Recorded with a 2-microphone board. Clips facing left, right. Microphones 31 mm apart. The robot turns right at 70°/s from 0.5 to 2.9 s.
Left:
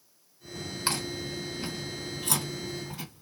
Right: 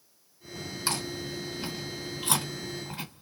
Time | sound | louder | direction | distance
0.9 | chewing | left 1 dB | 30° left (ahead or behind) | 1.8 m